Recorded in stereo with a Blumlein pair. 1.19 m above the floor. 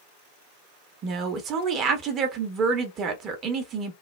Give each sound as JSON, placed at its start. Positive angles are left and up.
{"t": 1.0, "sound": "a woman speaking", "azimuth_deg": -30, "distance_m": 0.8}